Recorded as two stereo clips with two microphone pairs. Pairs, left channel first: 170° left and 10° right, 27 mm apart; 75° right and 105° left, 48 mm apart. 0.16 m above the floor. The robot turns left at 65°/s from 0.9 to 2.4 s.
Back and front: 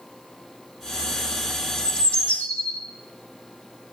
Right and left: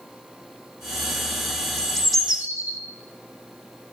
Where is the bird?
145° right, 1.2 m; by 2.8 s 175° left, 1.2 m.